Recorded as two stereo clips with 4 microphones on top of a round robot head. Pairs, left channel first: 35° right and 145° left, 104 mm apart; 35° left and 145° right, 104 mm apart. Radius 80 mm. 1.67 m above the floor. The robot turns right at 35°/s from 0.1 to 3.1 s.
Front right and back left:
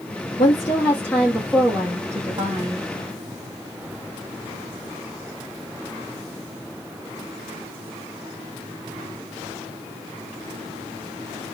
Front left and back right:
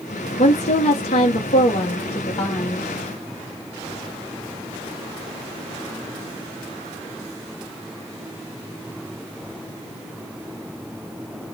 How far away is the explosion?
I don't hear an explosion.